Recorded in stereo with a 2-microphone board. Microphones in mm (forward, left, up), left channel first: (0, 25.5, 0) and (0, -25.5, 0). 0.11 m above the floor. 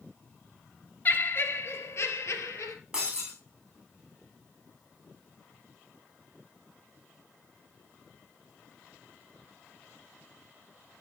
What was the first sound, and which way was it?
Laughter, 35° left (ahead or behind).